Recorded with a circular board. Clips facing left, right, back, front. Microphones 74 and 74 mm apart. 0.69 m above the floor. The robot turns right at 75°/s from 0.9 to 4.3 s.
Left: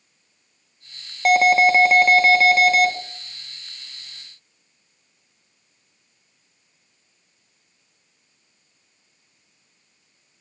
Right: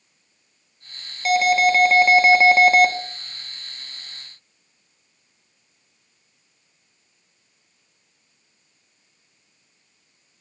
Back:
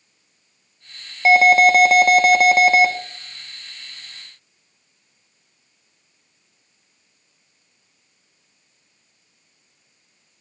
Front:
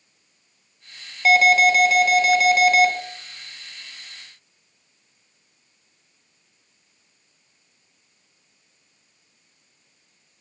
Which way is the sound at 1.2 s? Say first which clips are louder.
Left 2 dB, back 3 dB; 120° left.